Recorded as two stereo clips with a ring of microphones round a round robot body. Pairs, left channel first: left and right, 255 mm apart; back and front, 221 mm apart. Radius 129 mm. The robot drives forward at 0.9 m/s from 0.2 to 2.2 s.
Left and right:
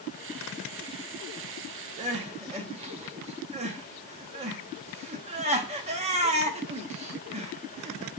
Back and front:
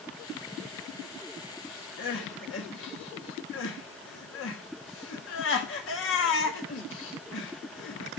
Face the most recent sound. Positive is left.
turn(degrees=-155)